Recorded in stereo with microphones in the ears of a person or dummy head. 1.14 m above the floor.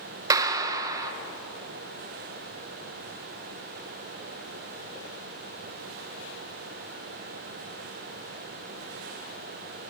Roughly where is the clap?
Centre.